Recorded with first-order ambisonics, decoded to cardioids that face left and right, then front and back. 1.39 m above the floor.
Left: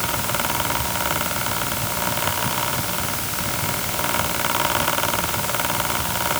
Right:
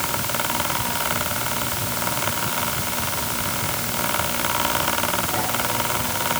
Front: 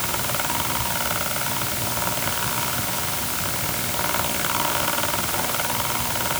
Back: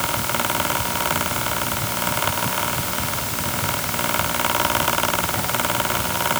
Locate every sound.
Only background noise.